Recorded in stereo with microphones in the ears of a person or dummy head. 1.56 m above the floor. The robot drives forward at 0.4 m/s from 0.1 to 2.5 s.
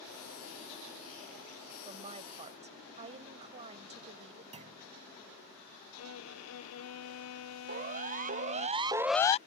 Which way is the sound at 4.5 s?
25° right (ahead or behind).